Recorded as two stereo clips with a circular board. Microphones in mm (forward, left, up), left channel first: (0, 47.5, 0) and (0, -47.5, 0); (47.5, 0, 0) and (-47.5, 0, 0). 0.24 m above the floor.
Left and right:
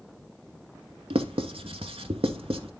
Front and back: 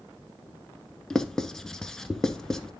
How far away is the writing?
About 0.7 m.